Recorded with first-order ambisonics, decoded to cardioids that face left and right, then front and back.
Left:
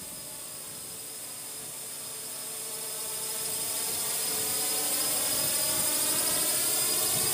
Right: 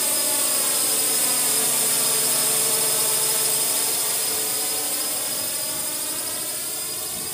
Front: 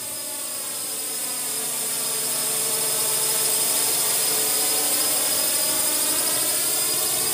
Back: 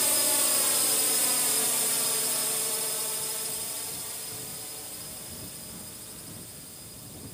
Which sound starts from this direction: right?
A drone, at 0.0 s.